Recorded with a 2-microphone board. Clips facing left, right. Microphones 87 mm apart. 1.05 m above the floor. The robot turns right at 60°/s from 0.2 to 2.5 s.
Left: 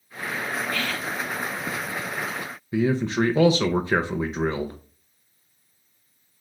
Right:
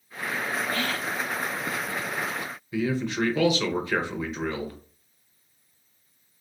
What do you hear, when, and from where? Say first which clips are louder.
0.7 s whispering: even; 150° right, 0.6 m; by 1.2 s 120° right, 0.6 m
2.7 s a man speaking: left 4 dB; 30° left (ahead or behind), 0.5 m